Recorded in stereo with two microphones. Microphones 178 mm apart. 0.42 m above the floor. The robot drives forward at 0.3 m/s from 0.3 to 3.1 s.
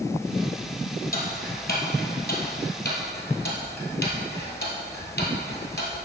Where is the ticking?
60° left (ahead or behind), 1.6 m; by 5.9 s 80° left, 1.4 m.